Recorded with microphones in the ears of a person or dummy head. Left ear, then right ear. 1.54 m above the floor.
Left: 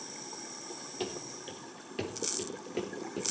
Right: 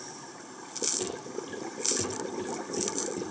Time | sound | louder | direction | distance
1.0 | running footsteps | right 3 dB | 35° left (ahead or behind) | 2 m